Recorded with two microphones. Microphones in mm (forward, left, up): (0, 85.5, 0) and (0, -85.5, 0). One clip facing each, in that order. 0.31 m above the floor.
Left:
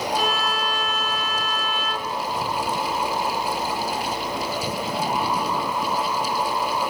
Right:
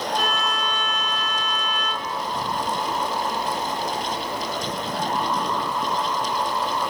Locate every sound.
0.1 s a violin: 5° left (ahead or behind), 2.5 m